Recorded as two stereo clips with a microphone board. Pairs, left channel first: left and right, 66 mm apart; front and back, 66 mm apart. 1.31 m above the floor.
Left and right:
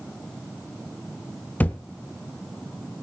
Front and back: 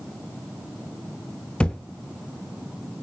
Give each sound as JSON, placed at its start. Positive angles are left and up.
{"t": 1.6, "sound": "a thud", "azimuth_deg": 55, "distance_m": 1.0}